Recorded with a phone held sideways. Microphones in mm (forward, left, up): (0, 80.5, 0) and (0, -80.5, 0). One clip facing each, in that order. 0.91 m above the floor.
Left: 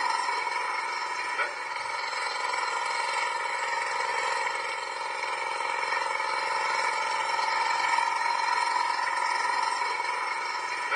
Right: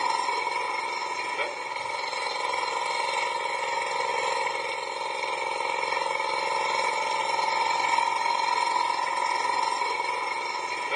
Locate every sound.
0.0 s an engine running: 25° right (ahead or behind)